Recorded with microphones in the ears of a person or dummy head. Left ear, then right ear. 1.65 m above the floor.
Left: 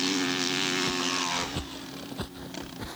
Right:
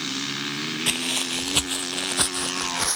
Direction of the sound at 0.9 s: 30° right (ahead or behind).